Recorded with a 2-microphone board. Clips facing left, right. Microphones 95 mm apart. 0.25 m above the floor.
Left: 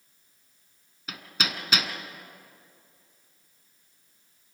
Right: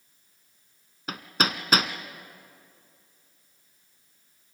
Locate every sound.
1.1 s hammering: 40° right (ahead or behind), 1.2 m